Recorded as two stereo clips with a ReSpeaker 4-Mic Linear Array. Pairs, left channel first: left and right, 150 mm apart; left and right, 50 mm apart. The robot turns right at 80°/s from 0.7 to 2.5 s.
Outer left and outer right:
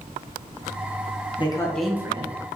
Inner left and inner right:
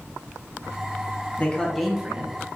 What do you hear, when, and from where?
1.4 s a man speaking: 145° left, 1.7 m; by 2.4 s 135° right, 1.7 m